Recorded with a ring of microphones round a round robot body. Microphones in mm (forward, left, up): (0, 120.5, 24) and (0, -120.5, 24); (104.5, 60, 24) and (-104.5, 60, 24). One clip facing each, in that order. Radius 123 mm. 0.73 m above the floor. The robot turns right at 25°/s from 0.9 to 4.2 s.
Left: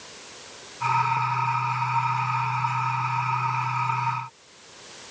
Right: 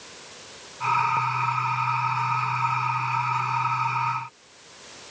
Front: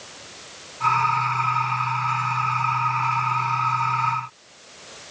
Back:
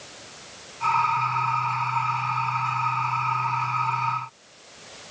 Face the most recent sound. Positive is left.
No sound to turn to.